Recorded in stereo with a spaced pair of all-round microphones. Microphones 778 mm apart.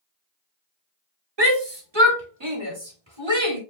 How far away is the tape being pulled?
I don't hear tape being pulled.